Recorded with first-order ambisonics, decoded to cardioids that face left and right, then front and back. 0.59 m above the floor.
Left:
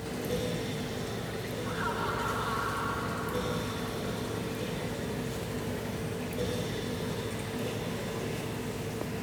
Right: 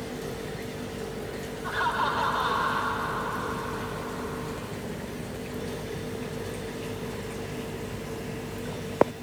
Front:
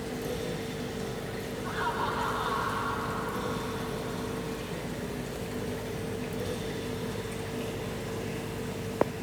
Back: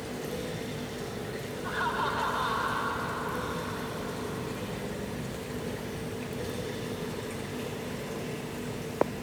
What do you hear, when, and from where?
1.6 s laughter: 110° right, 2.5 m